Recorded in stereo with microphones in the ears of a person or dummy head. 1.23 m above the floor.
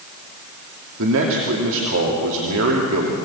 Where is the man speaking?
75° right (ahead or behind), 2.5 m.